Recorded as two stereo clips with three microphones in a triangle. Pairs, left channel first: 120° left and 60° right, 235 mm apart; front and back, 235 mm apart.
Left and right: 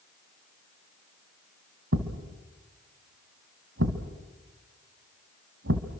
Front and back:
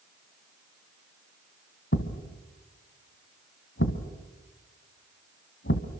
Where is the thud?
35° right, 1.6 m.